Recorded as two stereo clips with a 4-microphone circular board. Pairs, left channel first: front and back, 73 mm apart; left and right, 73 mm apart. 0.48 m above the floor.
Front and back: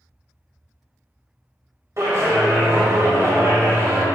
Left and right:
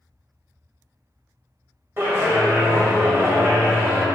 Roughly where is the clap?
Behind right.